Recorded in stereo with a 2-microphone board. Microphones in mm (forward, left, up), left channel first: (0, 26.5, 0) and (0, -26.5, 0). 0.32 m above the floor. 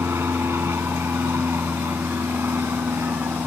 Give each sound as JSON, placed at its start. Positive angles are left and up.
{"t": 0.0, "sound": "an aircraft", "side_deg": -60}